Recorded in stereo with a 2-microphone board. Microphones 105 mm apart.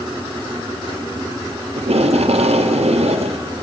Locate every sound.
1.8 s tape being pulled: 80° right, 0.8 m